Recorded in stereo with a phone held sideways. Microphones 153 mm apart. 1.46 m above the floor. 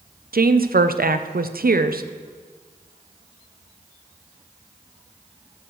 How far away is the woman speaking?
About 0.6 m.